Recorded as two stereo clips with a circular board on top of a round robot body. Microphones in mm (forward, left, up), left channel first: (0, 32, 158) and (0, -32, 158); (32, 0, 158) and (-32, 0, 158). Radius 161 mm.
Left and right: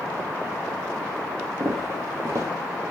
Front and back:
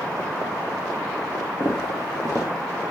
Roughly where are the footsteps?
Ahead right.